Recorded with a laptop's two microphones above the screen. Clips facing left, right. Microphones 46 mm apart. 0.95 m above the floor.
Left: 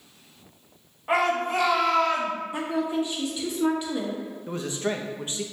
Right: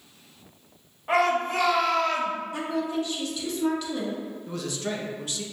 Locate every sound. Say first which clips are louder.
1.1 s a shout: even; 5° left (ahead or behind), 0.8 m
2.5 s a woman speaking: left 4 dB; 20° left (ahead or behind), 1.3 m
4.5 s a man speaking: left 4 dB; 25° left (ahead or behind), 0.6 m